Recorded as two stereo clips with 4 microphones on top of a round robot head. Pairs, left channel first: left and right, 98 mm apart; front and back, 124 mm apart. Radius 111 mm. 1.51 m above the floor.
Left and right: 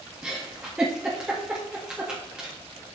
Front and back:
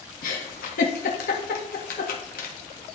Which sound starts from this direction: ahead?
A giggle, at 0.2 s.